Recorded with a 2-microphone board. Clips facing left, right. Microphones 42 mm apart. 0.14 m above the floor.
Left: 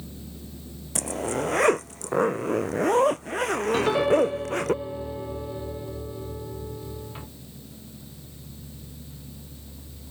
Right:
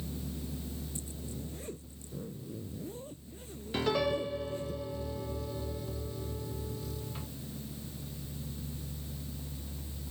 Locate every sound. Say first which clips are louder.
0.9 s a zipper: left 15 dB; 80° left
3.7 s a piano: left 8 dB; 25° left (ahead or behind)